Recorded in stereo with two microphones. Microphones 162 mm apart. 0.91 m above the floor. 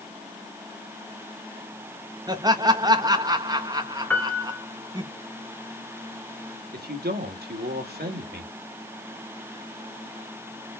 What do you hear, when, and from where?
2.3 s laughter: 25° right (ahead or behind), 1.5 m
4.1 s a piano: 10° left (ahead or behind), 1.4 m
6.7 s a man speaking: 85° right, 2.0 m